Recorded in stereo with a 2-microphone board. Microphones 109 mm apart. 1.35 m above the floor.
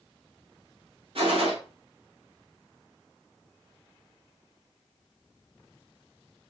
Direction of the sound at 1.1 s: 65° right (ahead or behind).